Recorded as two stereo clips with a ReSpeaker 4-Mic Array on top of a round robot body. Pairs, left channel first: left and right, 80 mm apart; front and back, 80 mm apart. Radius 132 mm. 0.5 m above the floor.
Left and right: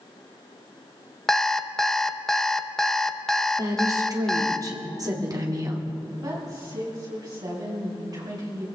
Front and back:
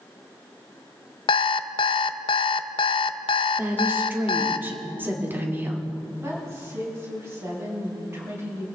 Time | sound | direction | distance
1.3 | an alarm clock | 5° left | 0.5 m
3.6 | a woman speaking | 120° right | 2 m
6.2 | a woman speaking | 125° right | 5.5 m